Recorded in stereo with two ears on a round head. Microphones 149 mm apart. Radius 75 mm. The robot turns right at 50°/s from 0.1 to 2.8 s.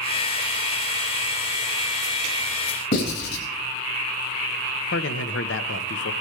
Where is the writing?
65° left (ahead or behind), 5.5 m.